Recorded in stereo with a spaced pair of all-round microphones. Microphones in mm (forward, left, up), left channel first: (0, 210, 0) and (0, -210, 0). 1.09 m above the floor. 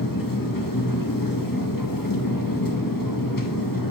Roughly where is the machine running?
Left.